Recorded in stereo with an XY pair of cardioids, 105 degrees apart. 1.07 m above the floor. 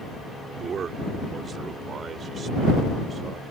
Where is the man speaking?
50° right; by 3.4 s 45° right.